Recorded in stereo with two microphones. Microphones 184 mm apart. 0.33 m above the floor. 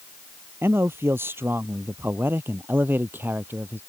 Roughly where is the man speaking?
Centre.